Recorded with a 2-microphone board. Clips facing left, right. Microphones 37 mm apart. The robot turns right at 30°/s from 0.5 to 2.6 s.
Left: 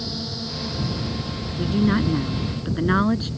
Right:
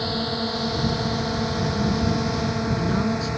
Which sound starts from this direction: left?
A woman speaking, at 1.6 s.